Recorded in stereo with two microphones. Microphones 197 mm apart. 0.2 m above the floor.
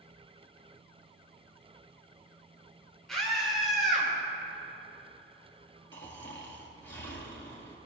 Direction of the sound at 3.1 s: Centre (ahead or behind).